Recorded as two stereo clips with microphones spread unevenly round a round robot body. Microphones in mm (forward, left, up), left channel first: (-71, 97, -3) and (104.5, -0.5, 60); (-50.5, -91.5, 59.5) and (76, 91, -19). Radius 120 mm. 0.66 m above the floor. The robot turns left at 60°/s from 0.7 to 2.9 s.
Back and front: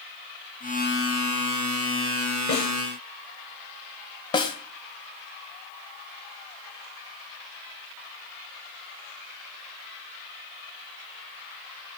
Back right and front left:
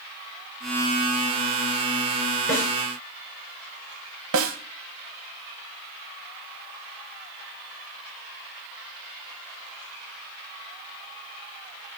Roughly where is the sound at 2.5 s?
Behind.